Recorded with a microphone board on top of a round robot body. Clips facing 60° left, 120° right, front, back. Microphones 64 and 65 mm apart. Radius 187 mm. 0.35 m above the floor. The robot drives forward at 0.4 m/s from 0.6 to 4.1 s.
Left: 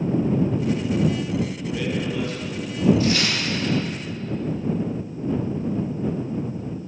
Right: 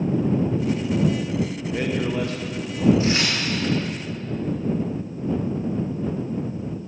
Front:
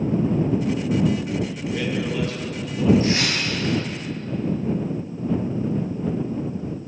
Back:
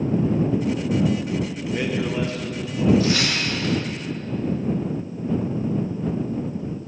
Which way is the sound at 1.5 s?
110° right.